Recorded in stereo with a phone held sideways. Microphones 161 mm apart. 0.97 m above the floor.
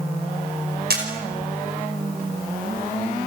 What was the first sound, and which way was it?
A camera shutter, 80° right.